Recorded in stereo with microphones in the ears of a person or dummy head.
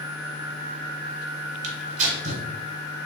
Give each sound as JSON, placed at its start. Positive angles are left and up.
{"t": 1.6, "sound": "tearing paper", "side_deg": -45, "distance_m": 1.1}